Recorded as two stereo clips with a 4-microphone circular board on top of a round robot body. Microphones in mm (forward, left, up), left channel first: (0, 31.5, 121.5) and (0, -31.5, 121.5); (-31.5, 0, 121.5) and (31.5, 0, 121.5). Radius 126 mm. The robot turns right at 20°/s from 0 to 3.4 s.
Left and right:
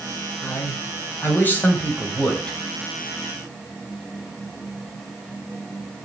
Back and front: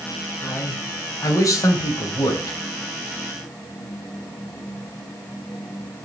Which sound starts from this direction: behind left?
A man speaking, at 0.4 s.